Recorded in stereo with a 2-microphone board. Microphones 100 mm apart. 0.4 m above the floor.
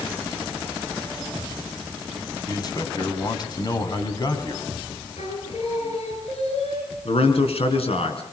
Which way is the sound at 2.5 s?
40° left (ahead or behind).